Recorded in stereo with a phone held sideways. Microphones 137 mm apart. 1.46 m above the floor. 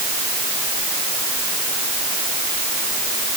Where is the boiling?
No boiling in this recording.